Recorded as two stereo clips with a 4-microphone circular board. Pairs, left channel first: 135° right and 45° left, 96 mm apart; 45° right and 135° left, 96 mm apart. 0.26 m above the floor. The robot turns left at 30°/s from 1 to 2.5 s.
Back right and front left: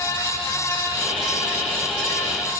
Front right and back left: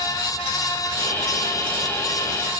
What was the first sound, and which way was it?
Only background noise.